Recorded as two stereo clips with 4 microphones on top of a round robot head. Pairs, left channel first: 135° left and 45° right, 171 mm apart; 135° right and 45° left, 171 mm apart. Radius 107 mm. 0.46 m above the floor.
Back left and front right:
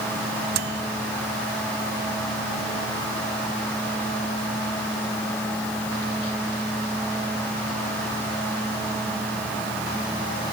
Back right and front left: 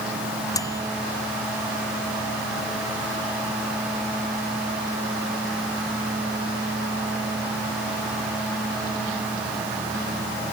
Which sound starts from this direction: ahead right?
A microwave, at 0.5 s.